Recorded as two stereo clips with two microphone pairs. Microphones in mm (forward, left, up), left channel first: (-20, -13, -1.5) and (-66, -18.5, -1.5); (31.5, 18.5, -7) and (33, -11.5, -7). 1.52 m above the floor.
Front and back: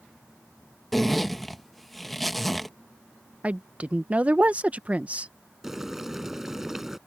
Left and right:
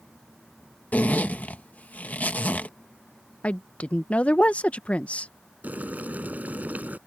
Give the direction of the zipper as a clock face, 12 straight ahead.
9 o'clock.